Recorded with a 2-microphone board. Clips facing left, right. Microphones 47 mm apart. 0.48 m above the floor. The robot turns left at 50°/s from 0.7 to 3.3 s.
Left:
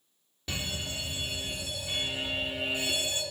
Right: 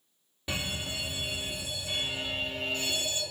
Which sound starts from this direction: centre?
A fire alarm, at 0.5 s.